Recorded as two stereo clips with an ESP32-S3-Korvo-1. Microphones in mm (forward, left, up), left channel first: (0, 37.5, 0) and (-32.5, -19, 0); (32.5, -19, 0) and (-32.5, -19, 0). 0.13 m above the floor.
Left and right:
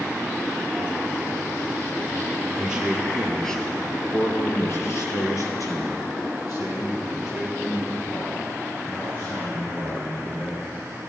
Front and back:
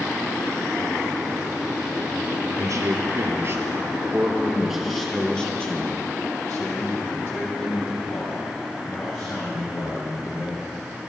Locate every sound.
2.6 s a man speaking: 165° left, 2.5 m; by 10.6 s 40° left, 7.5 m